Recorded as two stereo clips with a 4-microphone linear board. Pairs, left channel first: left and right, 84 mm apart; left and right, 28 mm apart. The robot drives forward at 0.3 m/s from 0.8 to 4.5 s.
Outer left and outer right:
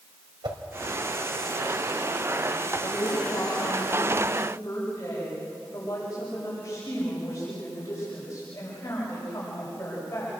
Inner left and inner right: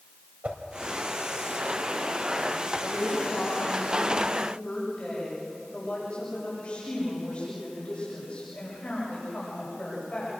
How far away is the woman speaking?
About 7 m.